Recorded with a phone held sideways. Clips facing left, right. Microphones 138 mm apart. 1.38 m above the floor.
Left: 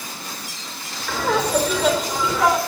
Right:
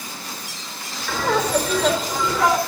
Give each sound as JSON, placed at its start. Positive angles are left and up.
{"t": 1.1, "sound": "laughter", "side_deg": 0, "distance_m": 4.5}